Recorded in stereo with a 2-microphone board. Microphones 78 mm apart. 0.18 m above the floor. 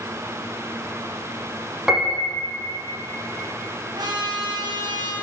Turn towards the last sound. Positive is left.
turn(degrees=-65)  # may be behind; listen again after turning